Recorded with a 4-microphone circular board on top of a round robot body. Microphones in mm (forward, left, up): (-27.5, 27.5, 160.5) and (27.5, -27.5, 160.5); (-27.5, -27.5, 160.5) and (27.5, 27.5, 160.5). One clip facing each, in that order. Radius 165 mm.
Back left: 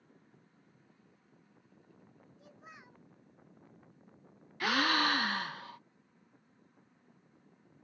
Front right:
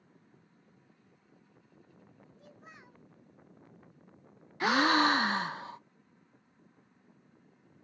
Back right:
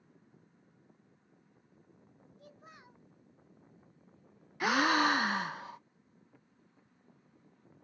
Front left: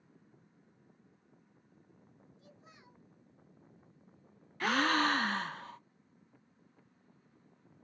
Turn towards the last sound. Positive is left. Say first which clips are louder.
# front right 5 dB, back right 2 dB
turn(degrees=-70)